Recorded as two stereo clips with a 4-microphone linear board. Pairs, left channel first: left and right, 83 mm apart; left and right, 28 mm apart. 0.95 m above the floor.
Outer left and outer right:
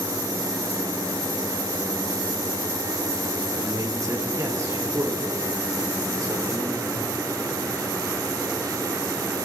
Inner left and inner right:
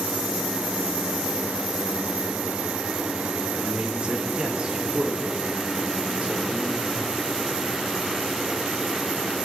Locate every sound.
3.5 s a man speaking: 45° right (ahead or behind), 3.5 m